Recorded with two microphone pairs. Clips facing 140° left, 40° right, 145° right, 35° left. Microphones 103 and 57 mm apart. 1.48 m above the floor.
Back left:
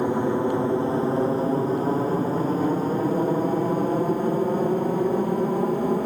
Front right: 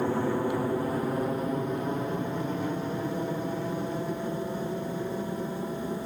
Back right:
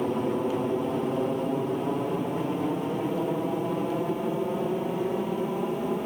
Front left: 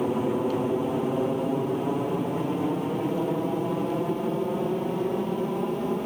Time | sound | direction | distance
0.0 | an aircraft | 115° left | ?